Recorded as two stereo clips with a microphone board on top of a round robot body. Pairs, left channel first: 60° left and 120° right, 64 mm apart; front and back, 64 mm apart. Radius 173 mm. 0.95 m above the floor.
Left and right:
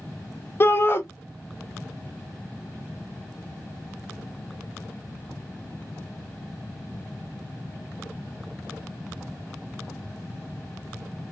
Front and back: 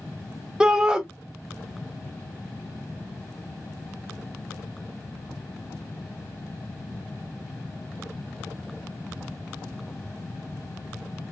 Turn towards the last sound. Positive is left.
turn(degrees=105)